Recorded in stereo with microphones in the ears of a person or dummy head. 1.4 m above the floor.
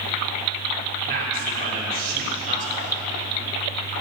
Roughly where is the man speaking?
Right.